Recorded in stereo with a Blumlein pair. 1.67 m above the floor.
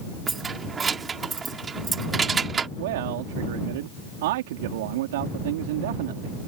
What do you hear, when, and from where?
0.3 s keys jangling: 20° right
2.8 s a man speaking: 55° right